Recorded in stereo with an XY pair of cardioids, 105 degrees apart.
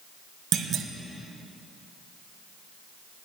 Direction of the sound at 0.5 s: 60° right.